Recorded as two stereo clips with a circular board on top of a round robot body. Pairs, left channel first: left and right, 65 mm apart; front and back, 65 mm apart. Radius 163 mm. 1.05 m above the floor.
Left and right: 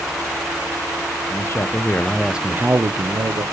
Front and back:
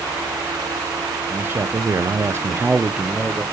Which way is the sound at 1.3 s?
125° left.